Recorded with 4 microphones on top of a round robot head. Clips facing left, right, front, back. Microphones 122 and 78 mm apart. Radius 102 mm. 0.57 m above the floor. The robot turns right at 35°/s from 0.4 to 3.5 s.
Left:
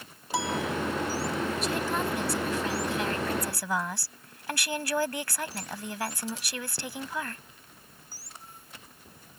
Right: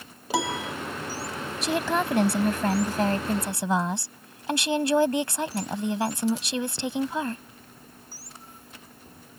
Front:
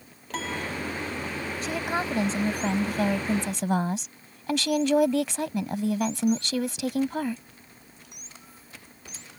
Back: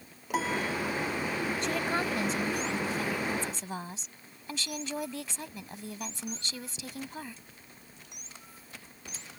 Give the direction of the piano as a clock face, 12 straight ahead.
3 o'clock.